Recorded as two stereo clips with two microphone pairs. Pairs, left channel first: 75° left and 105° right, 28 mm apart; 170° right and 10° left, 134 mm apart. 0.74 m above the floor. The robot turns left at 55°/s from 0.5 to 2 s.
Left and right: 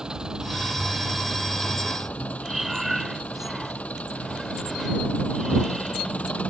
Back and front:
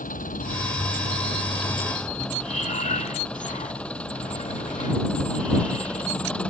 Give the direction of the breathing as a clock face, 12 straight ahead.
6 o'clock.